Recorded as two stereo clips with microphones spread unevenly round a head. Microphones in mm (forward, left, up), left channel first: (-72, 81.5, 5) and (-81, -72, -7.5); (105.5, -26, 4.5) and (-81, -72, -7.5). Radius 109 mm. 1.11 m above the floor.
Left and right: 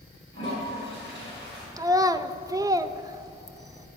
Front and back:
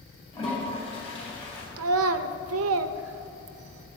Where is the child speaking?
165° right, 0.6 m.